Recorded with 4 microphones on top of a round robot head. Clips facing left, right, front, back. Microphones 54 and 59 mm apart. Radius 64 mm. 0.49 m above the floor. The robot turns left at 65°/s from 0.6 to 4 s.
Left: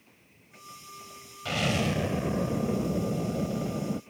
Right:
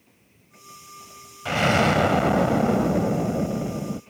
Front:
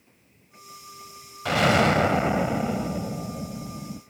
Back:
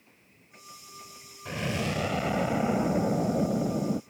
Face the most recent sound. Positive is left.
turn(degrees=175)